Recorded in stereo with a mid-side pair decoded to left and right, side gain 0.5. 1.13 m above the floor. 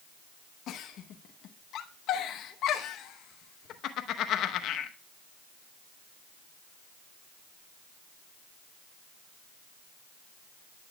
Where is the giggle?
65° left, 0.9 m.